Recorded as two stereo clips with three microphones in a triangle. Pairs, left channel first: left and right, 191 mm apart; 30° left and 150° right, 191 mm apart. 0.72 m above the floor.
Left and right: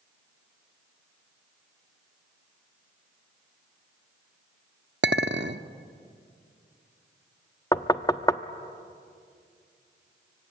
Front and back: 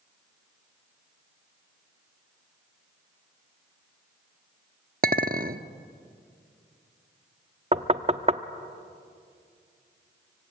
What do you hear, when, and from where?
5.0 s a clink: 110° right, 0.7 m
7.7 s knocking: 160° left, 0.7 m